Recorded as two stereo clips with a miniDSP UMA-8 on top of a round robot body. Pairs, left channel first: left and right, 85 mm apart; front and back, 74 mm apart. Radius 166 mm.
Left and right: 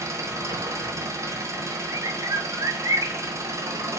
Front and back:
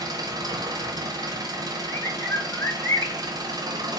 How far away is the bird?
About 3 m.